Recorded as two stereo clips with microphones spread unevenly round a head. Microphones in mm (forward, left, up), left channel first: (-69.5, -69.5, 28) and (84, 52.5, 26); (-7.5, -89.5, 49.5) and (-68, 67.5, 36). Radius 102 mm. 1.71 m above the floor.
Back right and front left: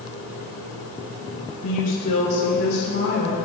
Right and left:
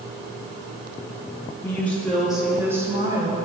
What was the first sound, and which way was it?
A woman speaking, 145° right.